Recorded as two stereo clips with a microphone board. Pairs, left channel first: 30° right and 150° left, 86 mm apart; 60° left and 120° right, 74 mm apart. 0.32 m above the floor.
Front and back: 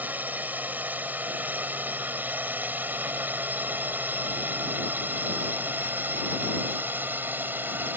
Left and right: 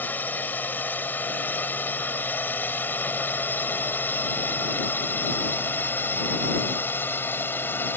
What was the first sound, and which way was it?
A drone, 100° left.